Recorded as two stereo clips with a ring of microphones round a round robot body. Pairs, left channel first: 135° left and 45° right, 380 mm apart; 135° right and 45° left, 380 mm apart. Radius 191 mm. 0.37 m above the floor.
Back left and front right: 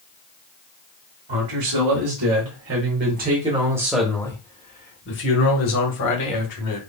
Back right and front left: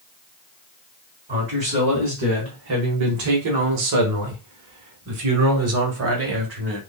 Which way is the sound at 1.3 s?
15° right.